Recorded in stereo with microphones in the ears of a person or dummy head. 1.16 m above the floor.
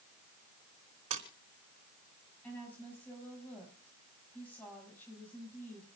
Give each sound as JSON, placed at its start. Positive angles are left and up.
{"t": 1.1, "sound": "a splash", "side_deg": -45, "distance_m": 3.0}
{"t": 2.4, "sound": "a woman speaking", "side_deg": 10, "distance_m": 7.0}